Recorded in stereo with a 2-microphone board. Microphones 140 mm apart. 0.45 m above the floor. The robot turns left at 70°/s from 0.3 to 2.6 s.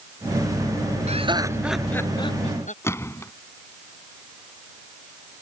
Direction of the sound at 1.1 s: 50° right (ahead or behind).